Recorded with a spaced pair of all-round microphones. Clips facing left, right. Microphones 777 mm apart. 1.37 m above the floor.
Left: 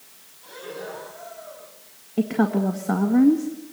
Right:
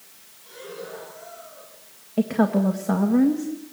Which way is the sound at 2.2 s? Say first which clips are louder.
Right 1 dB; 15° right (ahead or behind).